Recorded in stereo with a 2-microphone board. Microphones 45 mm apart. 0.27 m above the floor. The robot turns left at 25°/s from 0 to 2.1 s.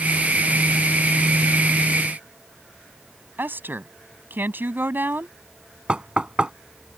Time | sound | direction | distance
3.4 | a woman speaking | 45° right (ahead or behind) | ?
5.9 | knocking | 20° right (ahead or behind) | ?